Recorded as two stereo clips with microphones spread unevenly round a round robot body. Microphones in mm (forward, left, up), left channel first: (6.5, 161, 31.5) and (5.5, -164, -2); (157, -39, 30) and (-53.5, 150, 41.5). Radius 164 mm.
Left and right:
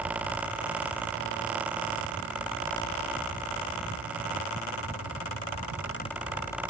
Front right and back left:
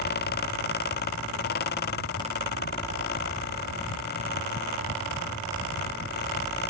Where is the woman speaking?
I don't hear a woman speaking.